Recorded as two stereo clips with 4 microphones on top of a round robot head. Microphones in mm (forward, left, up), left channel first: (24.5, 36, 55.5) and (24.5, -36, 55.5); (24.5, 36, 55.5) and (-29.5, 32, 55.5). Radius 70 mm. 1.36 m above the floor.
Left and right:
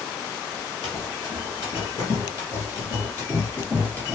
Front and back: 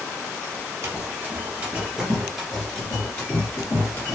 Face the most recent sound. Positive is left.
turn(degrees=30)